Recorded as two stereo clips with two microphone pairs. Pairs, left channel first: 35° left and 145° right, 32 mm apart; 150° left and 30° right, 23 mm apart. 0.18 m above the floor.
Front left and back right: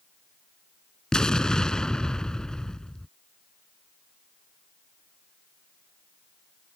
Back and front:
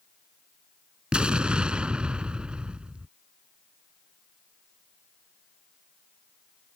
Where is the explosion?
25° right.